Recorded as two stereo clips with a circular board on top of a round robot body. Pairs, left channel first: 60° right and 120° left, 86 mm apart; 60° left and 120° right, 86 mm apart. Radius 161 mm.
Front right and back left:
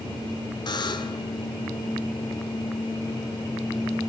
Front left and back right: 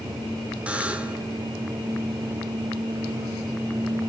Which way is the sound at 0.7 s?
45° right.